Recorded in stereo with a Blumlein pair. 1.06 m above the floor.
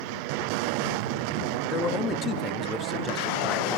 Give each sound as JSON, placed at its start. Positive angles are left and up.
{"t": 1.7, "sound": "a man speaking", "azimuth_deg": 30, "distance_m": 1.9}